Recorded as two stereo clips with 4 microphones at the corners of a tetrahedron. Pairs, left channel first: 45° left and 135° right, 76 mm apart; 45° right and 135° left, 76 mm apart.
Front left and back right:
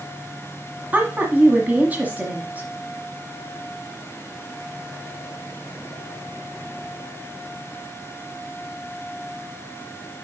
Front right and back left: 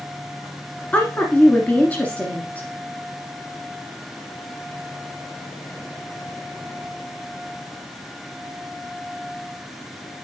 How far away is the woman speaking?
About 1.4 m.